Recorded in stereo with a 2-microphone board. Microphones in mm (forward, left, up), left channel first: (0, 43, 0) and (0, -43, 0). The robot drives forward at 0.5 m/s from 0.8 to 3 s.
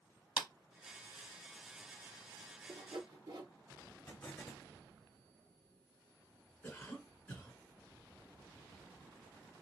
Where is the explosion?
20° left (ahead or behind), 2.5 m.